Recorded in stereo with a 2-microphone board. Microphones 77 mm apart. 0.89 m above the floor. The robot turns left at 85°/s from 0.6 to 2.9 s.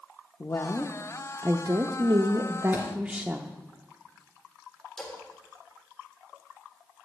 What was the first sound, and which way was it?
A woman speaking, 40° left.